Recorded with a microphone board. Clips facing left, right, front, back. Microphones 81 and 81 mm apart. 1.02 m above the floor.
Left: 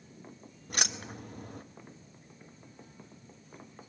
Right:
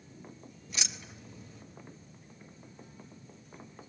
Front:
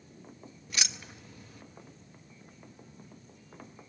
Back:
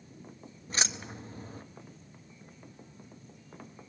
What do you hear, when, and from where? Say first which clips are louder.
0.7 s keys jangling: left 7 dB, back 4 dB; 125° left, 0.9 m